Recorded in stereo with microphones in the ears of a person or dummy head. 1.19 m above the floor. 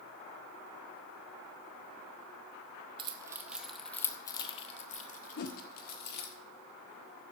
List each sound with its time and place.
3.0 s keys jangling: 25° right (ahead or behind), 0.7 m; by 6.3 s 55° left (ahead or behind), 1.6 m
5.4 s a whoosh: 50° left (ahead or behind), 0.8 m